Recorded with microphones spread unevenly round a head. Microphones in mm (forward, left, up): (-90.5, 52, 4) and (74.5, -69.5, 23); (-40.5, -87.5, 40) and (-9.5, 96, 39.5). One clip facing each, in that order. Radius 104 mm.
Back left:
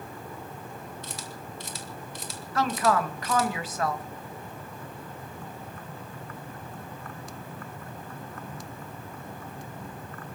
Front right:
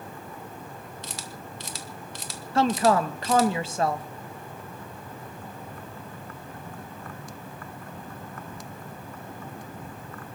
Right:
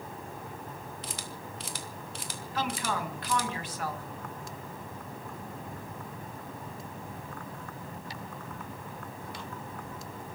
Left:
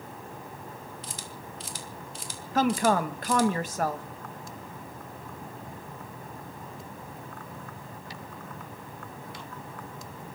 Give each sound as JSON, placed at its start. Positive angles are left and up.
{"t": 1.0, "sound": "a camera shutter", "azimuth_deg": -65, "distance_m": 2.5}
{"t": 2.5, "sound": "a woman speaking", "azimuth_deg": 30, "distance_m": 1.6}